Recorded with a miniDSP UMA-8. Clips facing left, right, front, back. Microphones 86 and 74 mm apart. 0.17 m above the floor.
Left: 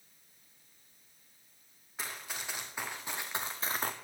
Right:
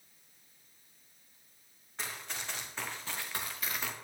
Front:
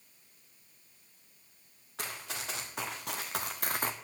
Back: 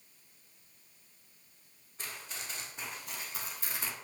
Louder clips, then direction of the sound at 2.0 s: Even, front 4 dB; 5° left.